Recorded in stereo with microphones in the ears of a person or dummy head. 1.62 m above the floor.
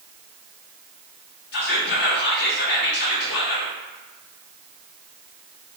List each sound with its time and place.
1.5 s whispering: 60° left (ahead or behind), 1.4 m